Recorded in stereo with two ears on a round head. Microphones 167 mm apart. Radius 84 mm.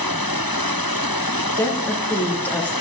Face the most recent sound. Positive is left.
turn(degrees=10)  # may be behind; listen again after turning